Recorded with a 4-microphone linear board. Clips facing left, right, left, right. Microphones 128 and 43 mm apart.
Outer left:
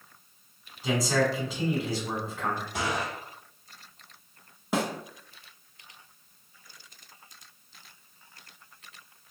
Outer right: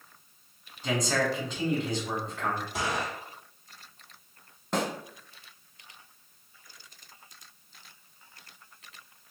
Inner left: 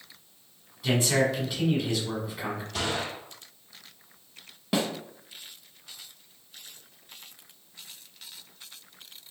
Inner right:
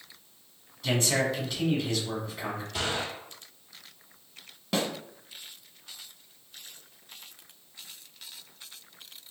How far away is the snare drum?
About 1.0 m.